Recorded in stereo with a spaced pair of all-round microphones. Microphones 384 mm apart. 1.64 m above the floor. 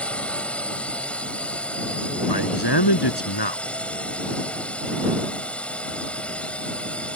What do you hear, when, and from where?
0.0 s a drone: 5° left (ahead or behind)
2.3 s a man speaking: 85° left